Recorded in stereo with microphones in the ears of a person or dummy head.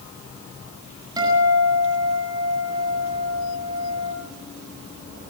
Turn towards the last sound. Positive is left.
turn(degrees=-20)  # may be behind; listen again after turning